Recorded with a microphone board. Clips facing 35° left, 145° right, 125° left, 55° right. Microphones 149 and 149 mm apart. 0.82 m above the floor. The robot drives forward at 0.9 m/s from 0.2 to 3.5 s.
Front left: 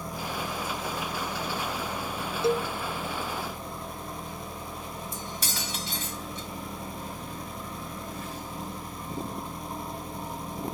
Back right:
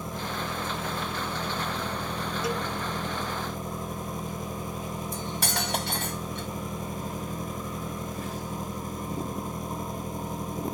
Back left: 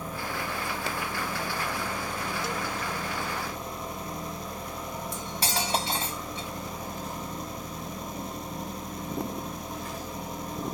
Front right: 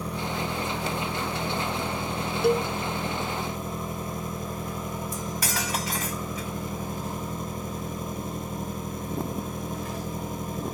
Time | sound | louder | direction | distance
0.0 | an engine running | back right 1 dB, front right 4 dB | 75° right | ?
2.4 | a cowbell | front left 7 dB, front right 10 dB | 25° right | ?
5.1 | cutlery clinking | back right 5 dB, front right 1 dB | 175° right | ?